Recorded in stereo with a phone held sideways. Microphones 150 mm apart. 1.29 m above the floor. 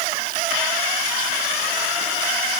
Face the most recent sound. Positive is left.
No sound to turn to.